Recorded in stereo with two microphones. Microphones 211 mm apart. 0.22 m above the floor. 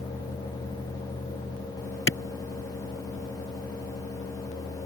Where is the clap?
75° left (ahead or behind).